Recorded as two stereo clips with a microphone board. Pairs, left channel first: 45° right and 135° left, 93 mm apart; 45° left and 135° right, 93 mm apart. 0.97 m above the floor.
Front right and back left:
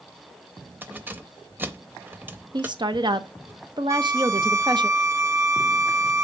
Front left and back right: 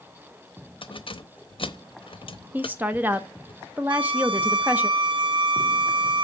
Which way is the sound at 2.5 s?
155° left.